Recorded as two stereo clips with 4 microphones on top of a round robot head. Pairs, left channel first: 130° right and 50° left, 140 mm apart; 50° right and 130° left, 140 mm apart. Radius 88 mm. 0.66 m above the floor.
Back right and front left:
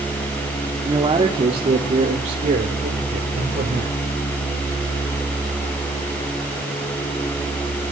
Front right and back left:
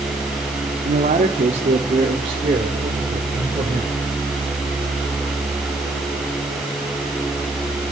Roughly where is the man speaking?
Left.